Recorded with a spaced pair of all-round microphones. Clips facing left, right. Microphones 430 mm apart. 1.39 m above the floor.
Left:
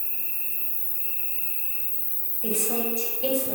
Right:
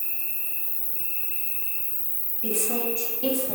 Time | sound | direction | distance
0.0 | an insect | 45° left (ahead or behind) | 1.6 m
2.4 | a woman speaking | 35° right (ahead or behind) | 1.3 m